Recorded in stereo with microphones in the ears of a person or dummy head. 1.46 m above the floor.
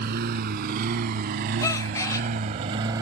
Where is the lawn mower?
55° right (ahead or behind); by 3.0 s 20° right (ahead or behind).